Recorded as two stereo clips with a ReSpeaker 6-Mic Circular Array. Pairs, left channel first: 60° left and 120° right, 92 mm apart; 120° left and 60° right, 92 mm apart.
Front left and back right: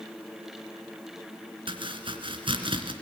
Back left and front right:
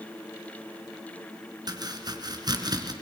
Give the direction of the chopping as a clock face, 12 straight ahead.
3 o'clock.